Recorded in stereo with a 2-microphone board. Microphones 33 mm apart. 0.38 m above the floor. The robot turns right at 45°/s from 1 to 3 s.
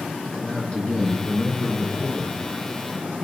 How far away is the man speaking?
About 5 m.